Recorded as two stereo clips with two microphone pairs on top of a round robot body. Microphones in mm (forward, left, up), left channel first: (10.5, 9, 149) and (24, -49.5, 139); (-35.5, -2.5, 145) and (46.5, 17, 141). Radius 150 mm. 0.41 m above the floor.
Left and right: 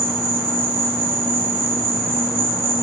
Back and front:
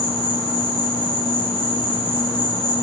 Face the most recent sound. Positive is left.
turn(degrees=-135)